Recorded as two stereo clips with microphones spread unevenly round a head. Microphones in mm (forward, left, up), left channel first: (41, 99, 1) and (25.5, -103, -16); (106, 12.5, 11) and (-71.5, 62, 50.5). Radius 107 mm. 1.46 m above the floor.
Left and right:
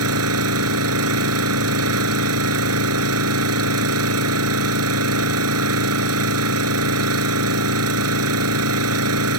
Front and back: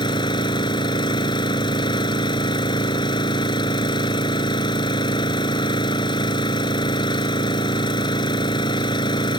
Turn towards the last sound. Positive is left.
turn(degrees=-85)